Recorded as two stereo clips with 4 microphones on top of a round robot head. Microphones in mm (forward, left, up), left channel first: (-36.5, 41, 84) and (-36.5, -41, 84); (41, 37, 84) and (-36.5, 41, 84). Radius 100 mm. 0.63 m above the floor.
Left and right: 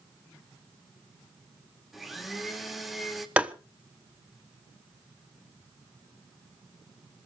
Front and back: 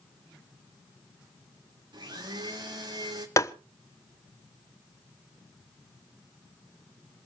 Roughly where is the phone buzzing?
No phone buzzing in this recording.